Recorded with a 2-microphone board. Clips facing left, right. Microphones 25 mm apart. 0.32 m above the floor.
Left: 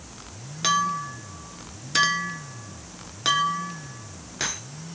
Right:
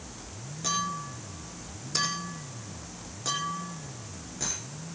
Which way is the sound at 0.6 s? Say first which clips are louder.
Left 8 dB; 75° left (ahead or behind).